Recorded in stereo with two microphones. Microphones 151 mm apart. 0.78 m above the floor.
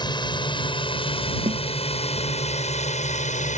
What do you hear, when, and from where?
0.0 s a drone: 30° left (ahead or behind); by 3.6 s 55° left (ahead or behind)
1.5 s a snare drum: 55° right (ahead or behind)